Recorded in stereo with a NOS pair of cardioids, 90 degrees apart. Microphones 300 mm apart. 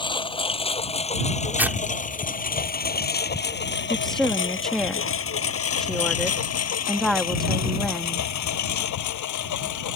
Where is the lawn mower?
15° left; by 10.0 s 75° left.